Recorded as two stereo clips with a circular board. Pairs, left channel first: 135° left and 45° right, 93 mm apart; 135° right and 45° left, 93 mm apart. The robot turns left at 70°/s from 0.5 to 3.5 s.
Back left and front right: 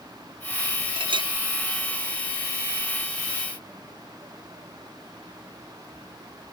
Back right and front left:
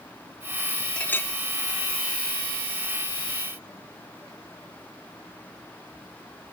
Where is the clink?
55° right, 0.6 m; by 1.3 s 80° right, 0.6 m.